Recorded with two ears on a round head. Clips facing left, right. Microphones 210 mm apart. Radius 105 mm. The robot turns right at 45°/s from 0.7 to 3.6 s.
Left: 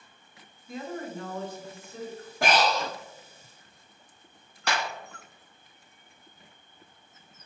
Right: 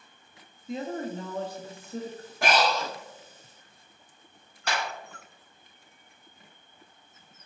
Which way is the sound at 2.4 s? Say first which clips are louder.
Even; 70° left (ahead or behind).